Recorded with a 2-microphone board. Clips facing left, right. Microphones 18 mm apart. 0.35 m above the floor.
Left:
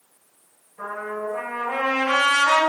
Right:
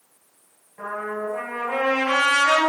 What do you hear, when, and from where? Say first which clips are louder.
0.8 s a trumpet: right 1 dB; 20° right (ahead or behind), 2.0 m